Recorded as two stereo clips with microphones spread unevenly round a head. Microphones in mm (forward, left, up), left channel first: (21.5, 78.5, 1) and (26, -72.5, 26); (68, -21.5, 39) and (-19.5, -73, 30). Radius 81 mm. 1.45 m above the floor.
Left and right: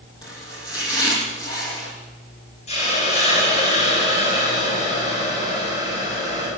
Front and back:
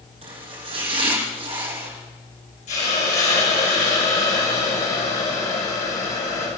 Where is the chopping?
160° left, 8 m.